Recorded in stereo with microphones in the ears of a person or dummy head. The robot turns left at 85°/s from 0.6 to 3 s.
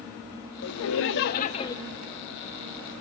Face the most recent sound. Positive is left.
turn(degrees=-85)